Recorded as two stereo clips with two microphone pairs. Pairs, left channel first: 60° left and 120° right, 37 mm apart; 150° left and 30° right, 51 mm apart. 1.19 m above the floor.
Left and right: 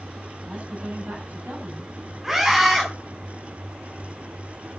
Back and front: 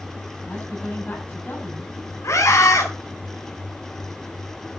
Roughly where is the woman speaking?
Behind right.